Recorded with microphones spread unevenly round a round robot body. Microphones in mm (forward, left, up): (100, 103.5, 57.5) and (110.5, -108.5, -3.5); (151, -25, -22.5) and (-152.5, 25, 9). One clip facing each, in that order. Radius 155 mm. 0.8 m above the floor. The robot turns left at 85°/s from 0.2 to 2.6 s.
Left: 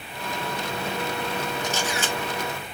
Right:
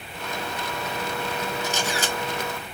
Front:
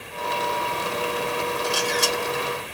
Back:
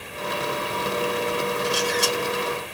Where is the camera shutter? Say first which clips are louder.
Even, back 1 dB; 10° right, 1.6 m; by 2.1 s 50° right, 1.6 m.